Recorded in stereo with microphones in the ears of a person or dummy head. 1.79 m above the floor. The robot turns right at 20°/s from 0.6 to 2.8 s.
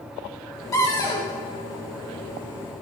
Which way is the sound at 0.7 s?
15° left (ahead or behind).